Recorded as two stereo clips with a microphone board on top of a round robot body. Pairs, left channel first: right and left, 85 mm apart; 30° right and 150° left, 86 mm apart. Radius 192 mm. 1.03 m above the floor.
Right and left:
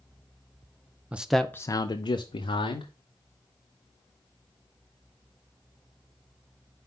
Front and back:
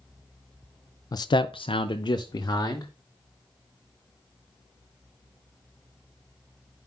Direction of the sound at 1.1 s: 15° left.